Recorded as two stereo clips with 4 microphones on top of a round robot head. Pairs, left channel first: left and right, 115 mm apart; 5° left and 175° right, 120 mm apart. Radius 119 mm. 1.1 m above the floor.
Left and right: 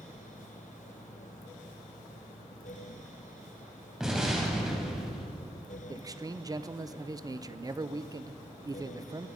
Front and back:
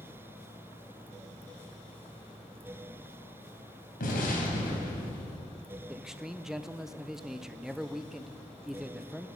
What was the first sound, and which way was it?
An explosion, 5° right.